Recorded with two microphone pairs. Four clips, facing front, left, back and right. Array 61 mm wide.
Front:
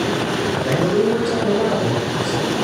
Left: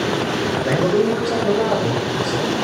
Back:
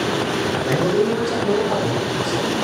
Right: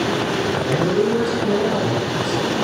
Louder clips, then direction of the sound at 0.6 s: Left 3 dB, front 1 dB; 65° left.